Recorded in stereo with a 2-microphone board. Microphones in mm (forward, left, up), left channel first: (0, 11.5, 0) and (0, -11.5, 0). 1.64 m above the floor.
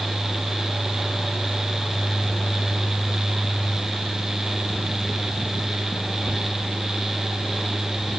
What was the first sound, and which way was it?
Only background noise.